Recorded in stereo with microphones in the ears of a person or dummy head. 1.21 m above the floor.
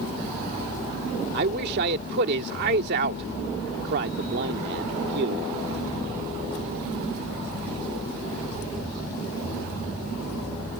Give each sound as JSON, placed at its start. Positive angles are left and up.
{"t": 1.3, "sound": "a man speaking", "side_deg": -55}